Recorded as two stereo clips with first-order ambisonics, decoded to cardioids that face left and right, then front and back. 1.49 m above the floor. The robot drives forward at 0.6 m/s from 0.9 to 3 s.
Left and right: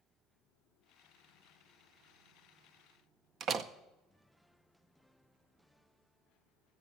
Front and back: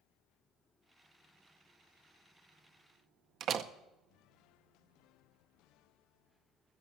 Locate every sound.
3.4 s a door slam: 140° right, 0.6 m